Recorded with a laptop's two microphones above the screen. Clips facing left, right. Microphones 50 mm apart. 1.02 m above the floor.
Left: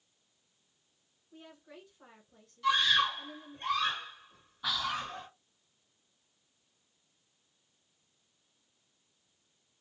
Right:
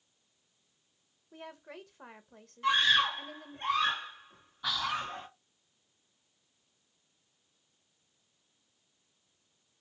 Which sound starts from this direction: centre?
Whispering, at 4.6 s.